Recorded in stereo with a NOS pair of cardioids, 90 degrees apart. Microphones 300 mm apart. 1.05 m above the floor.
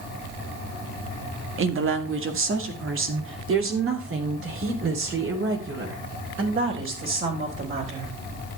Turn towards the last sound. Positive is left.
turn(degrees=-45)